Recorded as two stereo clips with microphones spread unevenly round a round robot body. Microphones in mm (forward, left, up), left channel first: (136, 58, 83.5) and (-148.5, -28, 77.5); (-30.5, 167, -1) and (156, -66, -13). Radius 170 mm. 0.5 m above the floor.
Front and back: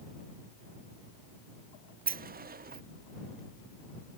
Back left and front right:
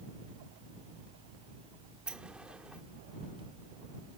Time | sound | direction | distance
2.1 | a sliding door | 135° right | ?